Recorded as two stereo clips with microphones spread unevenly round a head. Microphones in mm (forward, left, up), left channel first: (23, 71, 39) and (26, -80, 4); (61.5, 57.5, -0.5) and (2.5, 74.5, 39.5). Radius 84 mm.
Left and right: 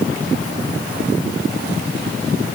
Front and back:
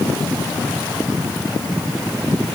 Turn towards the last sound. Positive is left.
No sound to turn to.